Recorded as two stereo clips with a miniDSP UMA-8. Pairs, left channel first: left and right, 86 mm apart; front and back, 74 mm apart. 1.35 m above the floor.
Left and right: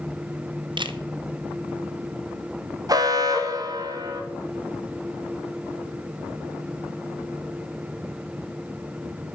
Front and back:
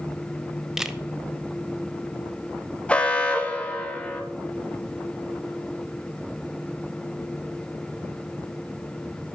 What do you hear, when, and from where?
0.8 s a camera shutter: 95° right, 0.7 m
2.9 s an alarm: 70° right, 1.3 m